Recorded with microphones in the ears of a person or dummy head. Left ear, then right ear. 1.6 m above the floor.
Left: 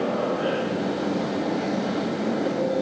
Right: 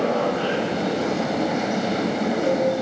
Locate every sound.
0.0 s a machine running: 85° right, 6.5 m